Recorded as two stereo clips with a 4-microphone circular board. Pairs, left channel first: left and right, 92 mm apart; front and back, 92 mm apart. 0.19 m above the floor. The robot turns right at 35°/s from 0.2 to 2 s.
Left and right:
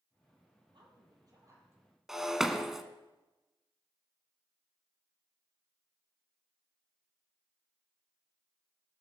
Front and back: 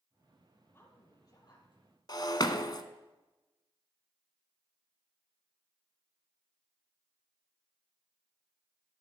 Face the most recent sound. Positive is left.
turn(degrees=-5)